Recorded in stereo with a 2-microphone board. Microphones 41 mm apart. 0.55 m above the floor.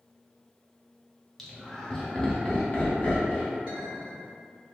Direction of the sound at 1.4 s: Centre (ahead or behind).